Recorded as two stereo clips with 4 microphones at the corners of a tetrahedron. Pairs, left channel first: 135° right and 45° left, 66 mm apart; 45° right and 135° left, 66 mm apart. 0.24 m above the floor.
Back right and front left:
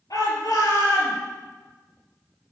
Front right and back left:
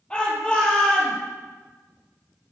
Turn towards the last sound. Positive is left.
turn(degrees=-120)